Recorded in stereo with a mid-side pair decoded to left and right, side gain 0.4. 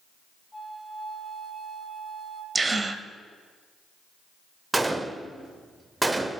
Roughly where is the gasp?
Ahead right.